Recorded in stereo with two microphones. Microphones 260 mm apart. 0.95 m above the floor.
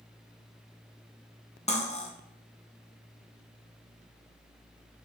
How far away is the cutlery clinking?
About 0.8 m.